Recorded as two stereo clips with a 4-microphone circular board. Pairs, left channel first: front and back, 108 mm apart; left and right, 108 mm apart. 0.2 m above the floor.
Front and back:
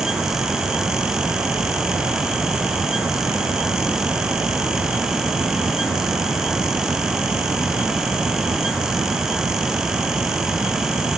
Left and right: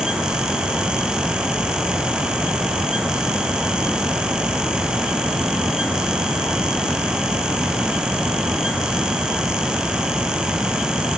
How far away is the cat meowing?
I don't hear a cat meowing.